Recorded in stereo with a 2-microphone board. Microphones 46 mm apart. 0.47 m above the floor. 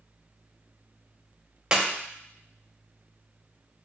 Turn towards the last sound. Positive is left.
turn(degrees=-15)  # may be behind; listen again after turning